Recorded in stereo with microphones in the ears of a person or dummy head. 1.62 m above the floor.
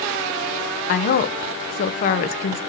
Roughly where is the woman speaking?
Left.